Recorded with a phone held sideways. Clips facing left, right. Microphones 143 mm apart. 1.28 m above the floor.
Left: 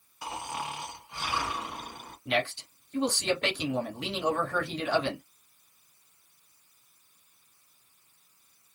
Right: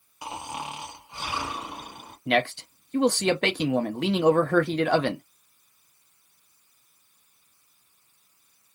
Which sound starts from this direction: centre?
Snoring, at 0.2 s.